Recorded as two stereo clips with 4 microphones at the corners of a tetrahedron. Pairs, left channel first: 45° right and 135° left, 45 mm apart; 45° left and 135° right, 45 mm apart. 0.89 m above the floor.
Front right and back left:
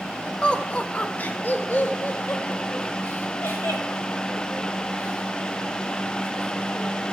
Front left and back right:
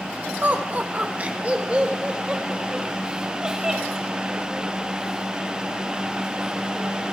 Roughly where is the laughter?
Right.